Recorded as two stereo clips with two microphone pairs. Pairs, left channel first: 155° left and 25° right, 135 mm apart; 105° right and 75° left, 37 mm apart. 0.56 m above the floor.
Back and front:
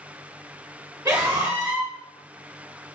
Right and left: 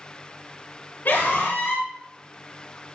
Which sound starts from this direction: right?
A scream, at 1.1 s.